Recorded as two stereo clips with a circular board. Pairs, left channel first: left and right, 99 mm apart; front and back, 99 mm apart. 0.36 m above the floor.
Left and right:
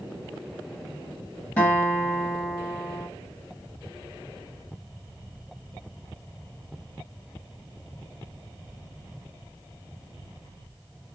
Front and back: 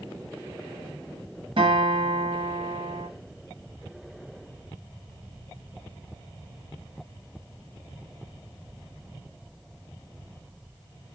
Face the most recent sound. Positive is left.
turn(degrees=165)